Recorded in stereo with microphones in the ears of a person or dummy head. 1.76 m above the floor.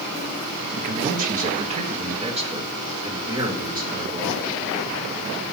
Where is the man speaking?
50° right (ahead or behind), 0.7 m; by 4.6 s 20° right (ahead or behind), 2.5 m.